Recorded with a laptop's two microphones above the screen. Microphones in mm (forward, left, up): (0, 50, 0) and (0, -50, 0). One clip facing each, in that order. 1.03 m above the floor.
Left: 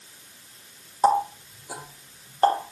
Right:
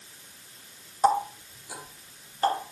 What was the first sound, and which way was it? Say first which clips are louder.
A running tap: left 3 dB; 35° left (ahead or behind).